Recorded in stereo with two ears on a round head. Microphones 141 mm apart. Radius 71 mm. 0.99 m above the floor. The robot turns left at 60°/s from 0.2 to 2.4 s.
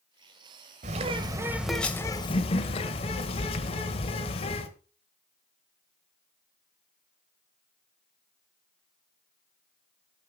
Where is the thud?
I don't hear a thud.